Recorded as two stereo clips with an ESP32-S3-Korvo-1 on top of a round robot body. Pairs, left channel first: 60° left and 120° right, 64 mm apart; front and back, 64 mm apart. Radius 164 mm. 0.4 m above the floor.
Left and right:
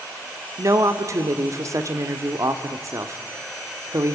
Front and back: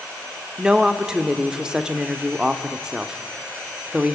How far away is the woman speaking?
About 1.7 m.